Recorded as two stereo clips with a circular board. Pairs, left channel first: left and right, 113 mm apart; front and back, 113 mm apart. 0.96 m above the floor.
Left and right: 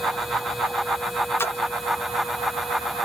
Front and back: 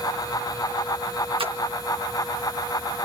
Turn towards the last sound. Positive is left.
turn(degrees=155)